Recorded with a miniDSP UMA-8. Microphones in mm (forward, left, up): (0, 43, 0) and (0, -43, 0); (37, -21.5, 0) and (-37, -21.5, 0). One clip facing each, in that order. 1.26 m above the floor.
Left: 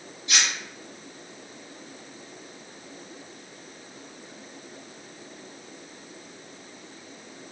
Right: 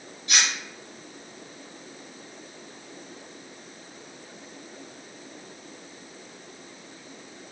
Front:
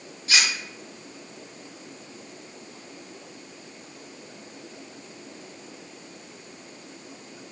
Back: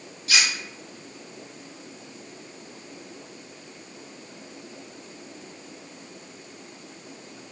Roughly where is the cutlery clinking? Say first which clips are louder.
Right 1 dB, even; ahead right.